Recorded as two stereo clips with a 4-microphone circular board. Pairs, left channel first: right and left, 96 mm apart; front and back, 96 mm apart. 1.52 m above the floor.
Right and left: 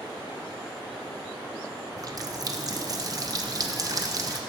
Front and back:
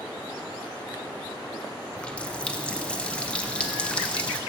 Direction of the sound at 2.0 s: 75° left.